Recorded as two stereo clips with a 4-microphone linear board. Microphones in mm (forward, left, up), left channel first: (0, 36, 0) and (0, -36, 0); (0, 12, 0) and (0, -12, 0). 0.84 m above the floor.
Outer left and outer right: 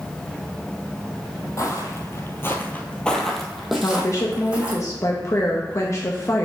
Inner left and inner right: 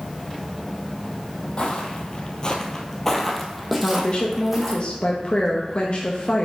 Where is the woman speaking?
40° left (ahead or behind), 0.7 m.